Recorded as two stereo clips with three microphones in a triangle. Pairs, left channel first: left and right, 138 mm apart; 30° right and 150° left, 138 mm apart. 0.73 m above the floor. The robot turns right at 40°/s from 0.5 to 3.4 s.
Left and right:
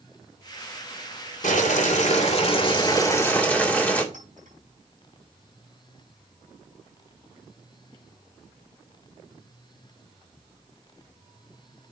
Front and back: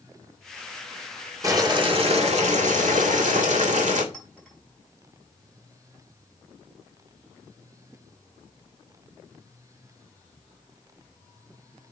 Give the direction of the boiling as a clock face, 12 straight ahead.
9 o'clock.